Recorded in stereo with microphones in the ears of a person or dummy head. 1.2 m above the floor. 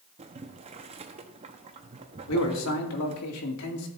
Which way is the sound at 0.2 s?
30° right (ahead or behind).